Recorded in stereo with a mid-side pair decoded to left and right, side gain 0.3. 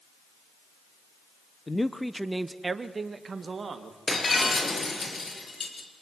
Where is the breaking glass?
50° left, 5.5 m.